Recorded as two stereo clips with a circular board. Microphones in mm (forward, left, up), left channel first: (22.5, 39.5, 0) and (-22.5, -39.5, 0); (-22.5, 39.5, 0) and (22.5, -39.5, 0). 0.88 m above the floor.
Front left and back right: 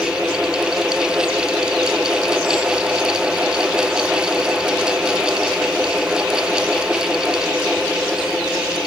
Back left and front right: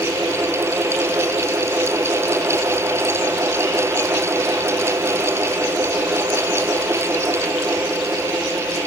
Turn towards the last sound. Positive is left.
No sound to turn to.